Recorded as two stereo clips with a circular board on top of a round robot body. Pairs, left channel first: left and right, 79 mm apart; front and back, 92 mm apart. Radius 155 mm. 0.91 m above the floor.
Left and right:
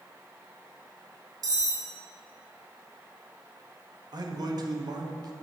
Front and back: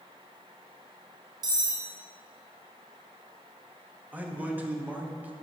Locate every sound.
1.4 s cutlery clinking: 130° right, 2 m
4.1 s a man speaking: 110° right, 1.5 m